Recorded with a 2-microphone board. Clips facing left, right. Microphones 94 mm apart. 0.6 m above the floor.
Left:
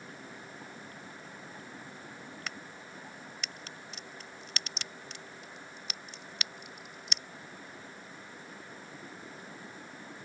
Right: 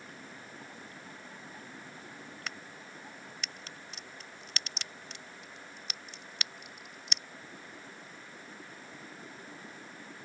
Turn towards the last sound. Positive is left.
turn(degrees=0)  # may be behind; listen again after turning